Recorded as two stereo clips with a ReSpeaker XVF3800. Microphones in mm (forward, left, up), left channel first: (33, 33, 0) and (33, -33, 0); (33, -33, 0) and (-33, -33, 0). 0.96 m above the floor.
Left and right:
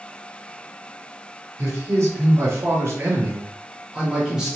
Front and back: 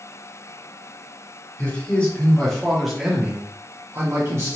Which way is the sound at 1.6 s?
60° right.